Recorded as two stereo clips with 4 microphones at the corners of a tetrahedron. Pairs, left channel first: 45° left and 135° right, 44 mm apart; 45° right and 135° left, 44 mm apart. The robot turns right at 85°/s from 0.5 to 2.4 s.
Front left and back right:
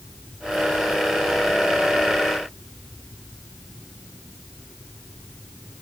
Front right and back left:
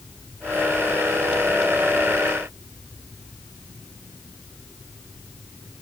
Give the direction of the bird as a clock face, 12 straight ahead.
I don't hear a bird.